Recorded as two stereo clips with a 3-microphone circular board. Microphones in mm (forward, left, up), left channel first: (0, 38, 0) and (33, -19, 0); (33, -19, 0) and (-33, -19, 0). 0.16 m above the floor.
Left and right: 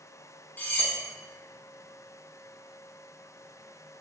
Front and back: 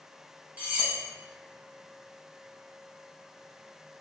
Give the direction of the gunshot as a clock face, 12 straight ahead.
No gunshot in this recording.